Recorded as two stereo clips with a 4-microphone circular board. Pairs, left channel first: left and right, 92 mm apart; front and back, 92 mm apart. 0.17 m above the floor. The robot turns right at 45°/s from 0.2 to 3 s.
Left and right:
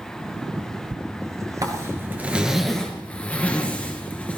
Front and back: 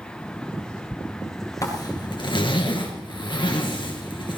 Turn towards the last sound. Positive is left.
turn(degrees=15)